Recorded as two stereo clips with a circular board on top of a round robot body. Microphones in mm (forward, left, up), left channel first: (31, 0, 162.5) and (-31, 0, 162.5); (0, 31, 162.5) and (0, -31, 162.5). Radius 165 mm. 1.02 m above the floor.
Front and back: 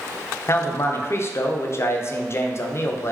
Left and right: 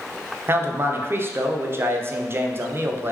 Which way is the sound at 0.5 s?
40° right.